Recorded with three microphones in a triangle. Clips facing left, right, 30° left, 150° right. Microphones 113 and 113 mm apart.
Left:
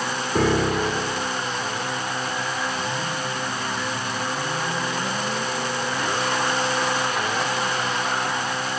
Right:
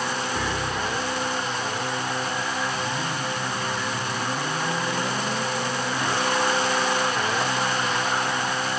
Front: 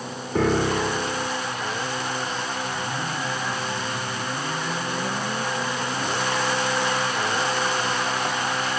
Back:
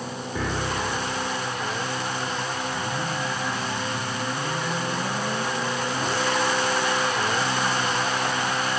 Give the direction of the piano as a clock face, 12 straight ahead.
10 o'clock.